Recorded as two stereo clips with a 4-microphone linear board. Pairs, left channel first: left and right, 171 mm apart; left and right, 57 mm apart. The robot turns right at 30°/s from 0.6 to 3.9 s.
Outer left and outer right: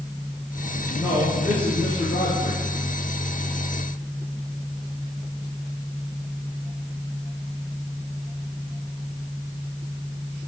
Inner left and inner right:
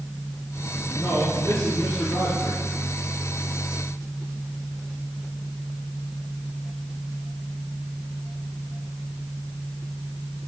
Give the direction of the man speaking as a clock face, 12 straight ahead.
11 o'clock.